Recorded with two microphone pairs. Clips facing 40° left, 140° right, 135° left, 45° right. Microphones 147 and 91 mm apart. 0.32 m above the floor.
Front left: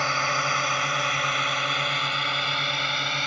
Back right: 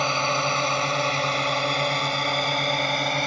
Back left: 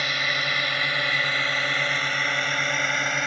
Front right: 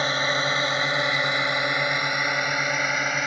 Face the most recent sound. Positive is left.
turn(degrees=-130)